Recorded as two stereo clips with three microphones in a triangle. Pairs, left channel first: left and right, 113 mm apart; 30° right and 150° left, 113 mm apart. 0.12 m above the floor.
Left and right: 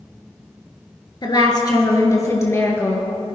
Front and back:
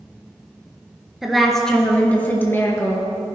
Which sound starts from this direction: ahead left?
A woman speaking, at 1.2 s.